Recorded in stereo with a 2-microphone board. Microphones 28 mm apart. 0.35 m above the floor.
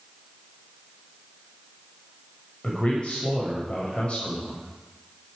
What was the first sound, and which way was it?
A man speaking, 45° left (ahead or behind).